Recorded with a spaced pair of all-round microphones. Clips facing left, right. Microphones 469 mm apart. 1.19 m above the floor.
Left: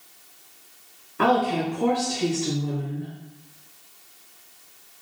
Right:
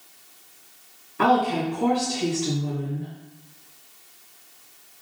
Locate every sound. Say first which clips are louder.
1.2 s a woman speaking: even; centre (ahead or behind), 0.8 m